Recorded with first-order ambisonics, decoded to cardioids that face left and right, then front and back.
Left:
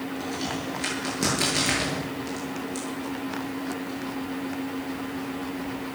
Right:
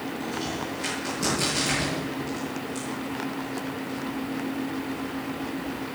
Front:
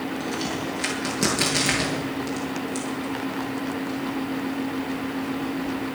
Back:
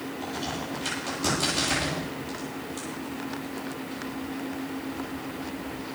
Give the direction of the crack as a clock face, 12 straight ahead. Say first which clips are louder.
Even, front 2 dB; 11 o'clock.